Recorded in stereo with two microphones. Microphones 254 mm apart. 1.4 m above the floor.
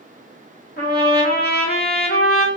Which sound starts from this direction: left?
A trumpet, at 0.8 s.